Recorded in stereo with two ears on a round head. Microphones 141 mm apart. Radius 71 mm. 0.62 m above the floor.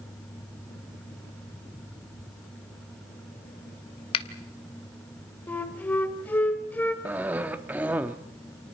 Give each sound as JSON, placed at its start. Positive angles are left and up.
{"t": 4.1, "sound": "a finger snap", "side_deg": 35, "distance_m": 1.1}
{"t": 5.5, "sound": "a flute", "side_deg": 10, "distance_m": 1.3}
{"t": 7.0, "sound": "a cough", "side_deg": -10, "distance_m": 1.3}